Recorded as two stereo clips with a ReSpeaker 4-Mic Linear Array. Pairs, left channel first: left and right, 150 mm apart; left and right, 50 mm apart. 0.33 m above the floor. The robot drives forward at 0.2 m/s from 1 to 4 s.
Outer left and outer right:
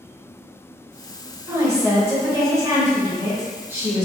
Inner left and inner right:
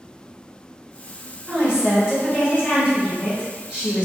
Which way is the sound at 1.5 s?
20° right (ahead or behind).